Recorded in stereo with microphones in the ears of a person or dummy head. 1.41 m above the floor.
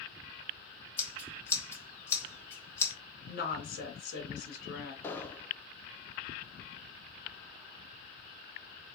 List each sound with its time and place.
1.0 s scissors: 20° left (ahead or behind), 1.5 m
3.3 s a woman speaking: 65° left (ahead or behind), 1.9 m
5.0 s an explosion: 15° left (ahead or behind), 0.7 m